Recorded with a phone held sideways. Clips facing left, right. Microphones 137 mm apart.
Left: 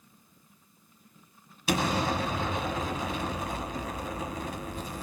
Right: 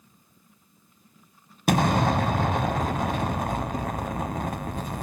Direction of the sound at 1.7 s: 60° right (ahead or behind).